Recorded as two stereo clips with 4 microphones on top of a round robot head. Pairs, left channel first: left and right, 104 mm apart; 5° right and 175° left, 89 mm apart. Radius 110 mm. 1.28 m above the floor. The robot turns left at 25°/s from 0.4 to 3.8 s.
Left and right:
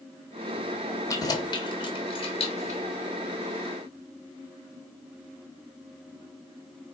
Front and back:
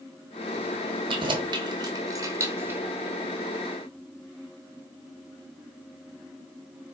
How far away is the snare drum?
No snare drum in this recording.